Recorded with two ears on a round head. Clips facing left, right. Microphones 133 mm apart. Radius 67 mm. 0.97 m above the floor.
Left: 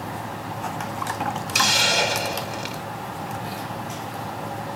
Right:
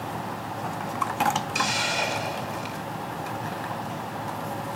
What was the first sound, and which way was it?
A hiss, 70° left (ahead or behind).